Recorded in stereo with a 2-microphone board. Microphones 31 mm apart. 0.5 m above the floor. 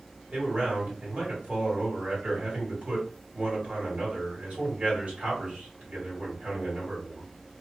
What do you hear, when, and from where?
0.3 s a man speaking: 50° right (ahead or behind), 1.8 m